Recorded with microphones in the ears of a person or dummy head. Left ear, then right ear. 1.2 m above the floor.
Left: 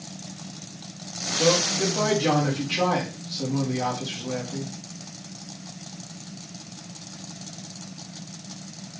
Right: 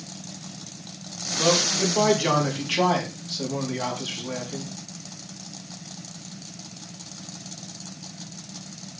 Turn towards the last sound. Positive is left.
turn(degrees=-65)  # may be behind; listen again after turning